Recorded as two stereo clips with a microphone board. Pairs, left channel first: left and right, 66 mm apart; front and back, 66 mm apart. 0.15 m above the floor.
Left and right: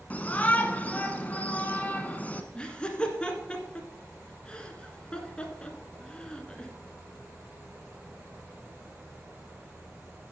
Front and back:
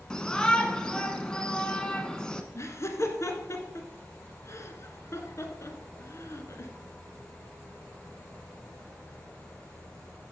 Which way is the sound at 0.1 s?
65° left.